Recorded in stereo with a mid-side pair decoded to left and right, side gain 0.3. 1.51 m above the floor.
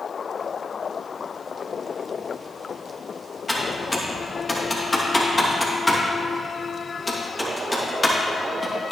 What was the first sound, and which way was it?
Typing on a keyboard, 25° left.